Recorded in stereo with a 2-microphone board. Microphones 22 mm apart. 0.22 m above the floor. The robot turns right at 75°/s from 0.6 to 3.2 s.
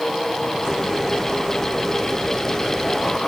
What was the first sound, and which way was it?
Only background noise.